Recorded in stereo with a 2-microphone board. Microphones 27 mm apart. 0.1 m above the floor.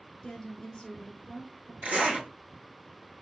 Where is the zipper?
60° right (ahead or behind), 1.9 m.